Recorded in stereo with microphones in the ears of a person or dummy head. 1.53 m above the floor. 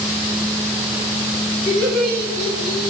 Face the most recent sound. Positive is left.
turn(degrees=20)  # may be behind; listen again after turning